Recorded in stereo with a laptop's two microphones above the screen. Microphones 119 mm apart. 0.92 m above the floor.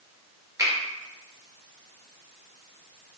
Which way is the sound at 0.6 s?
30° right (ahead or behind).